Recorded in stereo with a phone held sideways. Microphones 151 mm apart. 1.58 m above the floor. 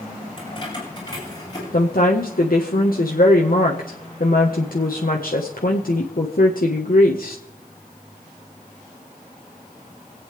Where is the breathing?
I don't hear breathing.